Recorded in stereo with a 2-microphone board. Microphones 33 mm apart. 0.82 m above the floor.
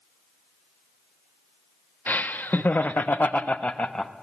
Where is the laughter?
60° left (ahead or behind), 1.2 m; by 4.1 s 25° left (ahead or behind), 0.8 m.